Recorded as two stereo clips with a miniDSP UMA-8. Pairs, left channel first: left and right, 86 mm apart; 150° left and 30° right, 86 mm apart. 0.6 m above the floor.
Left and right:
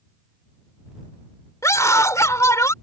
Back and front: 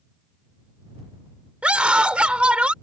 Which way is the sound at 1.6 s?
45° left.